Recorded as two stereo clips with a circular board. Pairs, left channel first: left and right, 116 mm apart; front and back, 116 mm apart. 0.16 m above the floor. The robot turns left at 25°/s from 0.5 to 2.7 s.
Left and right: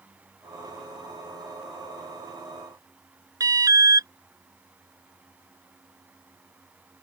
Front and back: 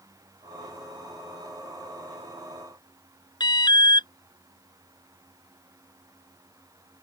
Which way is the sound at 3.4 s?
40° right.